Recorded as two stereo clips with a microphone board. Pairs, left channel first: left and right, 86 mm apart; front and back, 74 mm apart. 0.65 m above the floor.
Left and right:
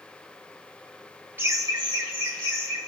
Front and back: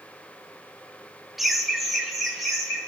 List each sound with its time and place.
1.4 s laughter: 95° right, 0.6 m; by 2.8 s 90° right, 1.6 m